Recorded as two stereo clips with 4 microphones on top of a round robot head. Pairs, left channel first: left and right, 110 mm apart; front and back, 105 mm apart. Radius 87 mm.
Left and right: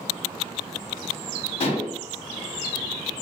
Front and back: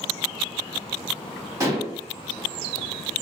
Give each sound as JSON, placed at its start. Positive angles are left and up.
{"t": 1.6, "sound": "dishes clattering", "azimuth_deg": 120, "distance_m": 1.1}